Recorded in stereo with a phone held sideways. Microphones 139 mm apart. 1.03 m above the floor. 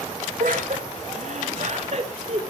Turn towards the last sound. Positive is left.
turn(degrees=-50)  # may be behind; listen again after turning